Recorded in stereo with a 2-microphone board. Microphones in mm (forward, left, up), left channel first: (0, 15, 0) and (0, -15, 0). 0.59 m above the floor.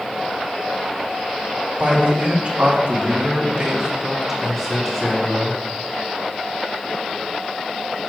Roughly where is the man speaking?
Right.